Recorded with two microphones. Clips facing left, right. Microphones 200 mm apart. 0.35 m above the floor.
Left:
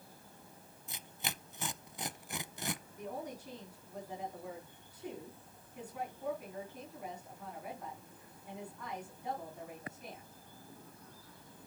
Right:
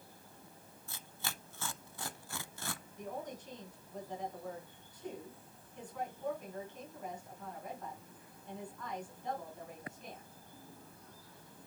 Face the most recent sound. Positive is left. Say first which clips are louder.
# left 1 dB
turn(degrees=10)  # may be behind; listen again after turning